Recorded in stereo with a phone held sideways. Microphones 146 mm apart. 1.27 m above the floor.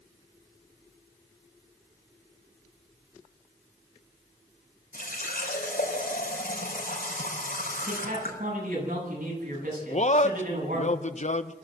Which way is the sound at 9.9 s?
55° left (ahead or behind).